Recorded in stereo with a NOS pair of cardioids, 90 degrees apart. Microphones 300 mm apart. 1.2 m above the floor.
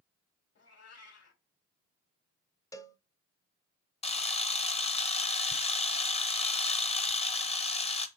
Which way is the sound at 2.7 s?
10° left.